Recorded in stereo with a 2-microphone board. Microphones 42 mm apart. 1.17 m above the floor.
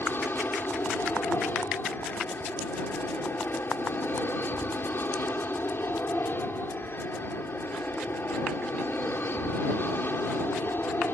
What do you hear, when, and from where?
0.0 s an aircraft: 55° left (ahead or behind)